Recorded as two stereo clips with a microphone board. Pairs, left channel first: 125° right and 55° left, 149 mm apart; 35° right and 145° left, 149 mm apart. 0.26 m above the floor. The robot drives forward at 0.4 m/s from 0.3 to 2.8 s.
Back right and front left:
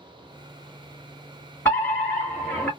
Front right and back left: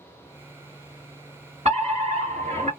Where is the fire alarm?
160° left, 3 m; by 2.7 s 165° left, 3 m.